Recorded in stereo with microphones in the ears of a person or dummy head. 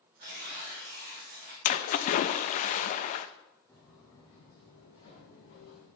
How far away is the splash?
About 0.5 m.